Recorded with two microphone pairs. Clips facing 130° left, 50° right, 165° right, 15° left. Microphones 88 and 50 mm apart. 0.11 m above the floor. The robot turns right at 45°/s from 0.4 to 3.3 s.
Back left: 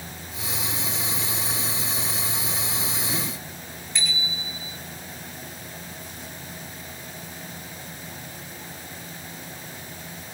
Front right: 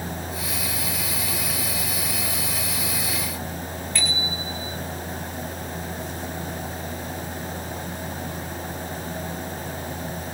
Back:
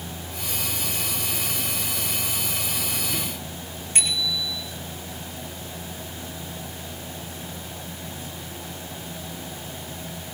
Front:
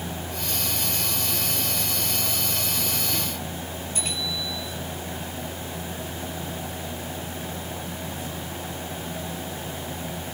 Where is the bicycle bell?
165° right, 5.5 m.